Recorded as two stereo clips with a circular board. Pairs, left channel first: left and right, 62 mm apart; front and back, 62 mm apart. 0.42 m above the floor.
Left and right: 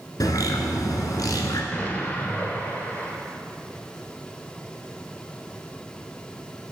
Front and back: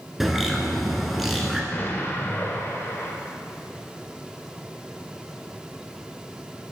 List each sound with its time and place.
0.2 s a bird: 90° left, 1.0 m
1.7 s an explosion: 40° left, 0.8 m